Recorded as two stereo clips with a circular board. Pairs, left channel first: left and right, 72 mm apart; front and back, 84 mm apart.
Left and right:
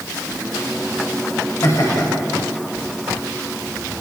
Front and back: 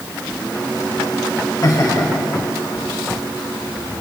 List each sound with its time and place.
1.6 s laughter: 45° left, 8.5 m